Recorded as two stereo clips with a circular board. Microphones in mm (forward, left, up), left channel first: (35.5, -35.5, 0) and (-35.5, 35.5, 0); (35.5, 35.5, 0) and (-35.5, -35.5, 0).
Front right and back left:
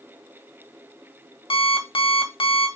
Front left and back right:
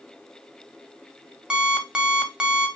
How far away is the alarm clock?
About 0.5 m.